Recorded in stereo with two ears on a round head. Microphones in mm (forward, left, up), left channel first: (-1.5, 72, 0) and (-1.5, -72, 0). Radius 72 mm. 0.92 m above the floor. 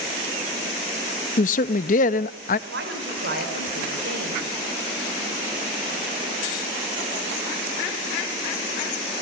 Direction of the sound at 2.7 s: 80° right.